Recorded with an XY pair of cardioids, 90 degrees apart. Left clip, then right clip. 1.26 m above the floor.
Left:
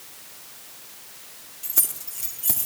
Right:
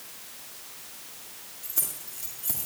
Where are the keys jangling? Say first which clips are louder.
Left 6 dB; 50° left, 3 m; by 2.7 s 55° left, 1.9 m.